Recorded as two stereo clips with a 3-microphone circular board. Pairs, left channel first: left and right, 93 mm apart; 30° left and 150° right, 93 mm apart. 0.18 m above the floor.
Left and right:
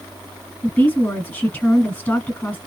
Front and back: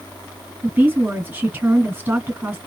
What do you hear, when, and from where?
0.6 s a woman speaking: 150° left, 1.9 m